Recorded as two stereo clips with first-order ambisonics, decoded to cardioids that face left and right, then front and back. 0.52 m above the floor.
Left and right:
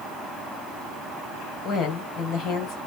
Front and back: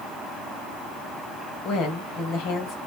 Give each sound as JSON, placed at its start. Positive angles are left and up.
{"t": 1.6, "sound": "a woman speaking", "azimuth_deg": 45, "distance_m": 2.5}